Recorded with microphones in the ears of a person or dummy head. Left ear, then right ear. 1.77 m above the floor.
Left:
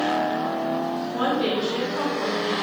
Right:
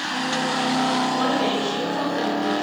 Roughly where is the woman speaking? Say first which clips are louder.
Right 2 dB; centre.